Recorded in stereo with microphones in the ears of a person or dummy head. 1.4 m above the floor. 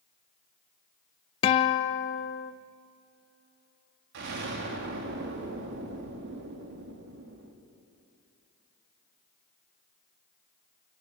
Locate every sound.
1.4 s a guitar: 25° left (ahead or behind), 0.6 m
4.1 s an explosion: 60° right (ahead or behind), 2 m